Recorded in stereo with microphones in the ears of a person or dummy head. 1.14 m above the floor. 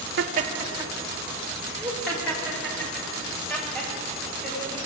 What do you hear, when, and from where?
0.2 s laughter: 60° right (ahead or behind), 0.9 m; by 4.8 s 15° left (ahead or behind), 6.5 m